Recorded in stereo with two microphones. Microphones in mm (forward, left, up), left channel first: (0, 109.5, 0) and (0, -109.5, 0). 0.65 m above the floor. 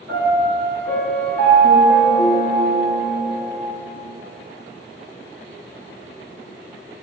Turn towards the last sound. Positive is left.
turn(degrees=-75)  # may be behind; listen again after turning